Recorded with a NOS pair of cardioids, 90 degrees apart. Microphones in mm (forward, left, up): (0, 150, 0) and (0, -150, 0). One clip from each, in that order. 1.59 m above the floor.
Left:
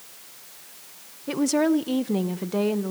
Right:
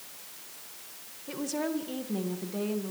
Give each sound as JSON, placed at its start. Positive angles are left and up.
{"t": 1.3, "sound": "a woman speaking", "azimuth_deg": 55, "distance_m": 1.3}